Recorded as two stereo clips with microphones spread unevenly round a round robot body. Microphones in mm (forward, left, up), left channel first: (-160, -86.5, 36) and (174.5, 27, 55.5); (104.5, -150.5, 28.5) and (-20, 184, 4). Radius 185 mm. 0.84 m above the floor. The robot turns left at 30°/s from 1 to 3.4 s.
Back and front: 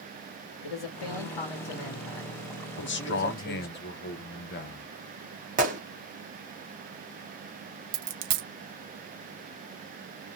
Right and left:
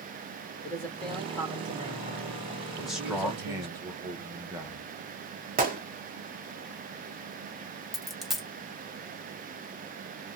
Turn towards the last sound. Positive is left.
turn(degrees=20)